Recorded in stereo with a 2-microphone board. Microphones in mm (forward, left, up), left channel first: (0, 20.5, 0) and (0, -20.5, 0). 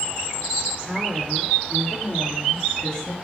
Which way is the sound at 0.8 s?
15° left (ahead or behind).